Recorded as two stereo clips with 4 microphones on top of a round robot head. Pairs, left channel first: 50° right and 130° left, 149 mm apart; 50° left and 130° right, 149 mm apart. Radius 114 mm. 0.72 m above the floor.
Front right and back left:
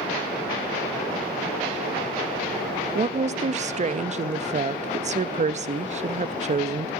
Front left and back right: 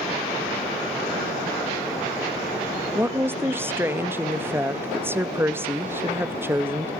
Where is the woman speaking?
155° left, 0.6 m.